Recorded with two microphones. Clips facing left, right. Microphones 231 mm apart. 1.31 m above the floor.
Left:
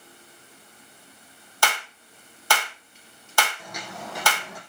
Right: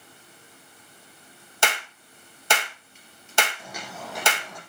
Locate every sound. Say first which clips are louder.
1.6 s a clap: even; 20° right (ahead or behind), 1.5 m
3.6 s footsteps: left 1 dB; 10° right (ahead or behind), 4 m; by 4.6 s 10° left (ahead or behind), 3.5 m